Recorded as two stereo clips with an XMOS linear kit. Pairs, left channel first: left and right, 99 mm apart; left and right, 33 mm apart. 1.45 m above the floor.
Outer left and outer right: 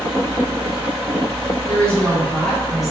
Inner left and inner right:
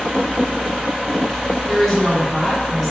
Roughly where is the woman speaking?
Centre.